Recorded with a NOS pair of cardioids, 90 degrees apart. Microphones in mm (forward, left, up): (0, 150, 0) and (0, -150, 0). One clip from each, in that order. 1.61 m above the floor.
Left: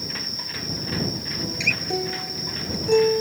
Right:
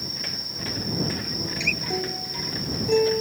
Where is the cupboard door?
I don't hear a cupboard door.